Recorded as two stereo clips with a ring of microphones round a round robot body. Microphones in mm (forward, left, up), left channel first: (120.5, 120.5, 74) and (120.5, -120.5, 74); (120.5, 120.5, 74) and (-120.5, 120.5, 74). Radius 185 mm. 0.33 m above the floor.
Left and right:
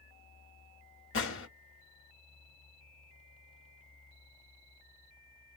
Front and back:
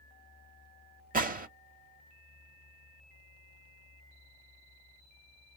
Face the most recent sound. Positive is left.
turn(degrees=125)